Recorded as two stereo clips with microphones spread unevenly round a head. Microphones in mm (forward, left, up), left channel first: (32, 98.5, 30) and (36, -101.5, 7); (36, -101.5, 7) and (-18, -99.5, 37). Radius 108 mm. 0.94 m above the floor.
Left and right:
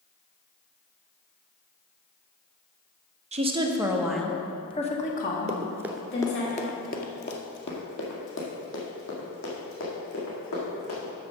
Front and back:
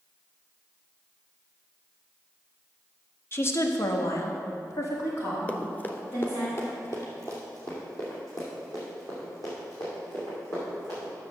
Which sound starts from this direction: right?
Running footsteps, at 5.5 s.